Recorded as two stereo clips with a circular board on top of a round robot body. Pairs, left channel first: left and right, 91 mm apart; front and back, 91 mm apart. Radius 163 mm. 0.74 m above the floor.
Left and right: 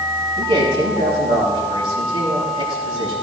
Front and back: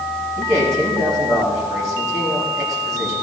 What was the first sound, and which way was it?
A man speaking, 125° right.